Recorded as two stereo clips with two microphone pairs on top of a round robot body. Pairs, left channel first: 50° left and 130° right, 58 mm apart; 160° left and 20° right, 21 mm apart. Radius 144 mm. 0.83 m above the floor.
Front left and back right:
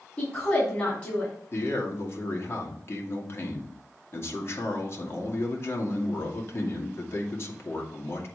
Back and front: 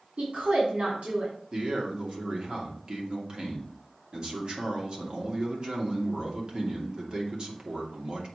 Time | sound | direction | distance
0.2 | a woman speaking | straight ahead | 3.5 m
1.5 | a man speaking | 25° left | 2.5 m